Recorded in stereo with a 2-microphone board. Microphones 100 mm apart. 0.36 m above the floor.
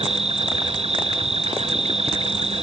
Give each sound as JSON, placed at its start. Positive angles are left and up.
{"t": 0.0, "sound": "an insect", "side_deg": -90}